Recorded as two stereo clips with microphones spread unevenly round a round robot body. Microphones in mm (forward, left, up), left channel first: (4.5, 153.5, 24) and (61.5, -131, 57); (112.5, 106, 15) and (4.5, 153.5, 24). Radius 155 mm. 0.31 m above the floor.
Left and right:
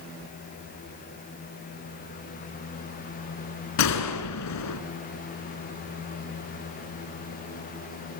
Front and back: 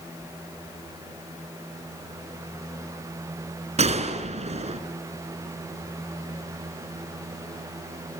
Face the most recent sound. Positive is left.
turn(degrees=130)